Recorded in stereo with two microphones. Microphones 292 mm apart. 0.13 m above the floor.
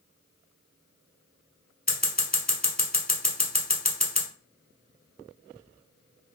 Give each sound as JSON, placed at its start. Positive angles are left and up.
{"t": 1.9, "sound": "scissors", "side_deg": 30, "distance_m": 1.0}